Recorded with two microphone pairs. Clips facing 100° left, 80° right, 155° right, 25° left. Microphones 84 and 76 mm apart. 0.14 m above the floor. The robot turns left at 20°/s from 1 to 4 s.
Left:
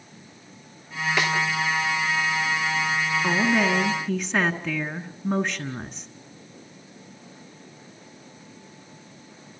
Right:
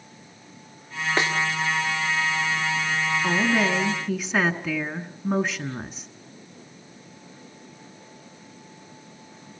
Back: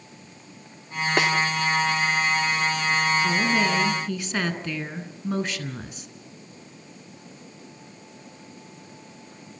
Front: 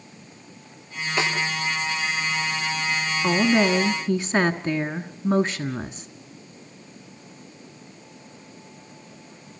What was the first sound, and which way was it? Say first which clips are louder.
A snare drum: even, back 2 dB; 130° right.